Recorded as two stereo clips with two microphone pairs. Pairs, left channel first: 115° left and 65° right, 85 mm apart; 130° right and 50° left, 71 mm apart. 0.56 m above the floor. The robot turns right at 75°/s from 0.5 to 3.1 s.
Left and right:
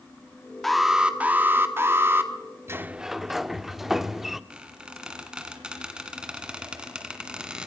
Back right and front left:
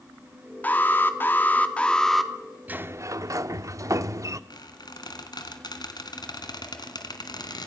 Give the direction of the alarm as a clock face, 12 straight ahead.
5 o'clock.